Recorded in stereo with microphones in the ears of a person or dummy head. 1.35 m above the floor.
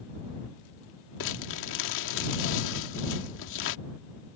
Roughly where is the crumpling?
Left.